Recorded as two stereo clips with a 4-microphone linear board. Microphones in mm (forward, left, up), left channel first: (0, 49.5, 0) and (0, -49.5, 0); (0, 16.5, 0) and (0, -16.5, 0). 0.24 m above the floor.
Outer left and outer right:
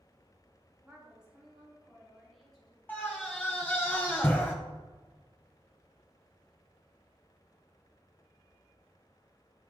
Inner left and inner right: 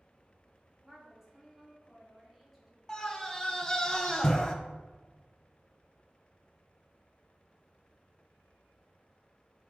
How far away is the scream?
About 1.0 m.